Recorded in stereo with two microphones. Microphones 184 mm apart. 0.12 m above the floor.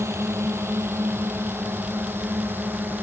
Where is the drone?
15° right (ahead or behind); by 3.0 s 10° right (ahead or behind).